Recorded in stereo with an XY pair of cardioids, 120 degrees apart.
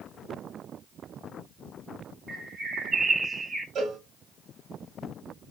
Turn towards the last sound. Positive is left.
turn(degrees=-60)